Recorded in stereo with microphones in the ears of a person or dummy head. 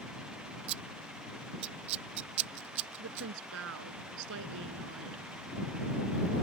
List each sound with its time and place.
0.7 s scissors: 35° right (ahead or behind)
3.0 s a woman speaking: 75° right (ahead or behind)